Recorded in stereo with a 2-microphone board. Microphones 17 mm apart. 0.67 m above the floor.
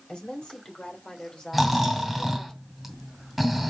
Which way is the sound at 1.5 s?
5° right (ahead or behind).